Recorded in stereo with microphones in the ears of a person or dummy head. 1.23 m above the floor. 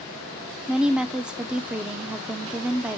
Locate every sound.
0.7 s a woman speaking: 5° right (ahead or behind), 0.5 m